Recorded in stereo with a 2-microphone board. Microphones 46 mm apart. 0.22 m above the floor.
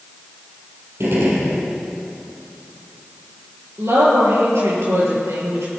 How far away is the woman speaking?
About 5.5 m.